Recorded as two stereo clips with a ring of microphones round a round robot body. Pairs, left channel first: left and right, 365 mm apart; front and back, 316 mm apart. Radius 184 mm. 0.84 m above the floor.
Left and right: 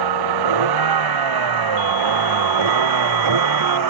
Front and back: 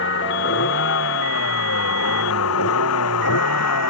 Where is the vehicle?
60° right; by 3.9 s 50° right.